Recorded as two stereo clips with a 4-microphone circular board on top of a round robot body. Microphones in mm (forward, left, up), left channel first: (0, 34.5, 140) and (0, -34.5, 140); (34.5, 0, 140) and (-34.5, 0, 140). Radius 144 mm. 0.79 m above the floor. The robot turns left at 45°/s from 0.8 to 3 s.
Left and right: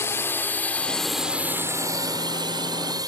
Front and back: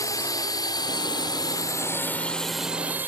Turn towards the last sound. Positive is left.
turn(degrees=-120)